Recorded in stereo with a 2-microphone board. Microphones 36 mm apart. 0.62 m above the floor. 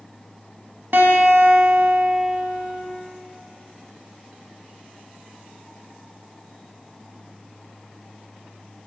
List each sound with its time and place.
0.9 s a guitar: 65° right (ahead or behind), 1.1 m